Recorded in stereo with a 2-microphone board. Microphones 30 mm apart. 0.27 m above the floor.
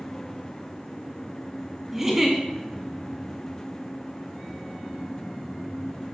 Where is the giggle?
10° right (ahead or behind), 1.8 m.